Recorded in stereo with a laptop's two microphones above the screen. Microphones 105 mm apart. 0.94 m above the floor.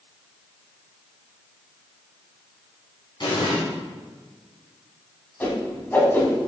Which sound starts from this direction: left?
An explosion, at 3.2 s.